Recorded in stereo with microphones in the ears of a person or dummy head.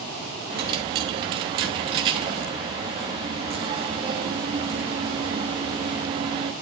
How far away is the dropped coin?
About 1.1 m.